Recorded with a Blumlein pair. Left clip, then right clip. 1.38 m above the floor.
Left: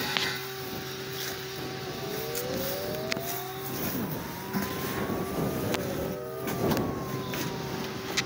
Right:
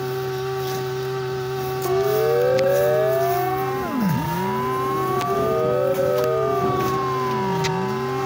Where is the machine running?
55° right.